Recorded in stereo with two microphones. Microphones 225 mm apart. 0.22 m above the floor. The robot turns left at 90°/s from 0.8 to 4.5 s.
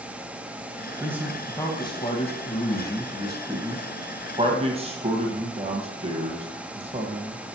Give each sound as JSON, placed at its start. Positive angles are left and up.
{"t": 1.0, "sound": "a man speaking", "side_deg": -15, "distance_m": 1.4}